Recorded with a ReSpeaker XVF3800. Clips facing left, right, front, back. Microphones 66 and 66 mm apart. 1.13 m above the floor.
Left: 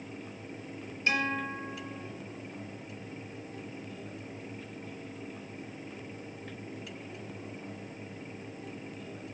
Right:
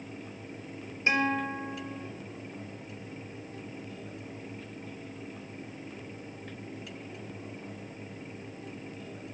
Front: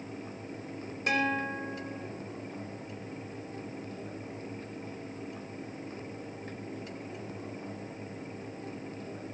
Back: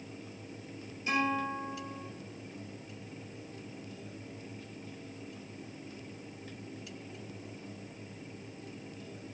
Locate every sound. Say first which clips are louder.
1.1 s a guitar: right 3 dB, front 1 dB; 25° right, 4.5 m